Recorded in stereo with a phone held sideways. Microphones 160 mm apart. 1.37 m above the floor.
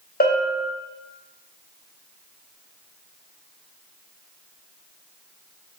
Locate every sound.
0.2 s a bell: 70° left (ahead or behind), 0.7 m